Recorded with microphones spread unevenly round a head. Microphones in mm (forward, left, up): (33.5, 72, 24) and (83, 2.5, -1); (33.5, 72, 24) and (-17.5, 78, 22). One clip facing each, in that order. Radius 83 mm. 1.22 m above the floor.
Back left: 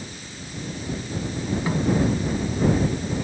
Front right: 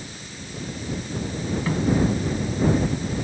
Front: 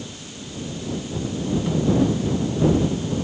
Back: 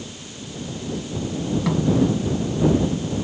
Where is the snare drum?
155° right.